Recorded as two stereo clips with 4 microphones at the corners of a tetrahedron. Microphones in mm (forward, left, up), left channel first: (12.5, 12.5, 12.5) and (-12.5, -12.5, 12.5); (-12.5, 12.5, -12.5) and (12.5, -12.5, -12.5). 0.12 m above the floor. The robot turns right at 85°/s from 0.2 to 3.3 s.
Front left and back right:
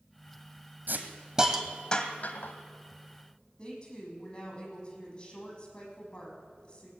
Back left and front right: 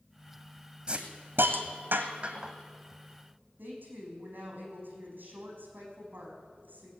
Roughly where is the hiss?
Right.